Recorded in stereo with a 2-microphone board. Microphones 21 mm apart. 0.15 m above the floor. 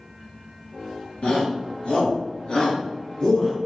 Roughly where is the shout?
Left.